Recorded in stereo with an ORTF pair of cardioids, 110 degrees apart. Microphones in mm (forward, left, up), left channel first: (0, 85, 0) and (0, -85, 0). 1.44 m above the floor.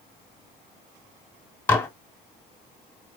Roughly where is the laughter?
No laughter in this recording.